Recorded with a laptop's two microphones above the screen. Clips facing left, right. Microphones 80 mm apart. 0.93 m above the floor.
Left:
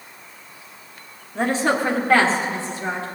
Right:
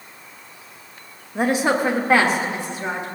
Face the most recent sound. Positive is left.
turn(degrees=-15)  # may be behind; listen again after turning